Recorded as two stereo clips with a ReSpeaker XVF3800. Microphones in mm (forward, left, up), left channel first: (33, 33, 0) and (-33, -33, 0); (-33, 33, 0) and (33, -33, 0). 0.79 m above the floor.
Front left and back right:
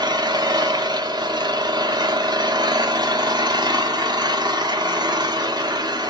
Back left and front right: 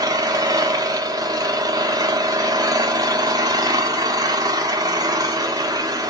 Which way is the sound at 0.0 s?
95° right.